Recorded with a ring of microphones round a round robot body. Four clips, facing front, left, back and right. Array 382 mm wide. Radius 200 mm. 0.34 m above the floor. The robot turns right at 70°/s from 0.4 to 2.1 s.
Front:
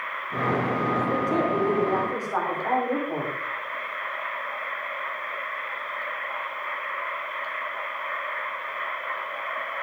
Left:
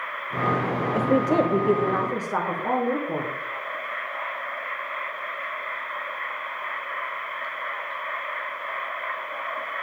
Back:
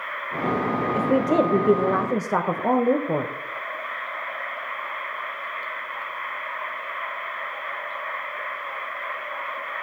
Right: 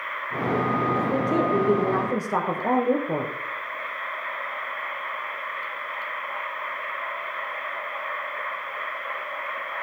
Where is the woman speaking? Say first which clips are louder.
Left 2 dB, back 8 dB; 115° left, 1.4 m; by 3.3 s 165° right, 1.4 m.